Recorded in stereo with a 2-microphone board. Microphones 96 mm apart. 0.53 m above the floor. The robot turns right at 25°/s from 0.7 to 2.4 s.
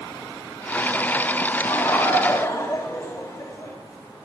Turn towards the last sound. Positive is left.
turn(degrees=35)  # may be behind; listen again after turning